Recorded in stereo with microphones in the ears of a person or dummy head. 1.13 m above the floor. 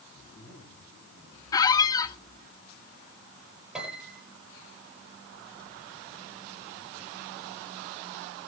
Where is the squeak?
30° left (ahead or behind), 0.8 m.